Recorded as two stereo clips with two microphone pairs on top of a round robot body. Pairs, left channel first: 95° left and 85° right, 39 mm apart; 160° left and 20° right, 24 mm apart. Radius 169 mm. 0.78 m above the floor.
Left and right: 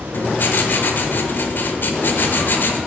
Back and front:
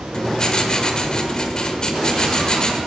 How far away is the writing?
About 0.9 m.